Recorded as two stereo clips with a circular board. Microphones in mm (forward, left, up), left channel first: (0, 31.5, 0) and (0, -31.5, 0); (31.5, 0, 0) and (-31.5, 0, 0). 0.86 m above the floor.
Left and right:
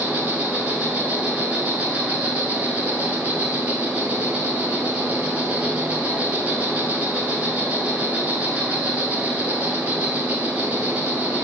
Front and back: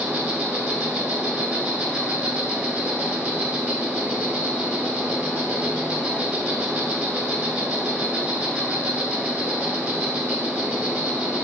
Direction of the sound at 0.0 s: 130° right.